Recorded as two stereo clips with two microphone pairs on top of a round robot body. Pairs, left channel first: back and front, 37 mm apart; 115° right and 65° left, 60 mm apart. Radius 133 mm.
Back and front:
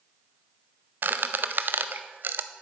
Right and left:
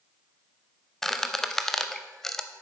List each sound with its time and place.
1.0 s a squeak: 30° right, 0.5 m